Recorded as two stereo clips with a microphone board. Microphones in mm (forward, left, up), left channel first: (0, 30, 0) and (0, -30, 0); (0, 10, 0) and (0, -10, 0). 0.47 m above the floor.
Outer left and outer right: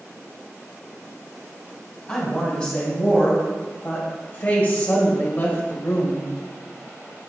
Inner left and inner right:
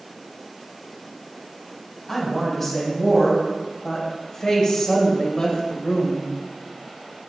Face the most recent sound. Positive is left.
turn(degrees=50)  # may be behind; listen again after turning